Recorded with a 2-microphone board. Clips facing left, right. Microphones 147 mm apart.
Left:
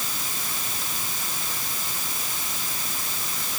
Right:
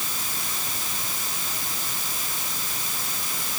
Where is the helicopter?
No helicopter in this recording.